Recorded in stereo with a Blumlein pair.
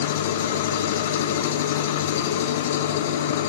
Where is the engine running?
55° left, 0.9 m.